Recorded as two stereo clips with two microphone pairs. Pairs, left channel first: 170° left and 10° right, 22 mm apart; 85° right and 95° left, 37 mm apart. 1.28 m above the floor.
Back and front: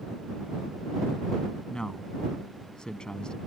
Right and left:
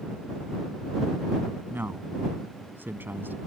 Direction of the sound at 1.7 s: 120° left.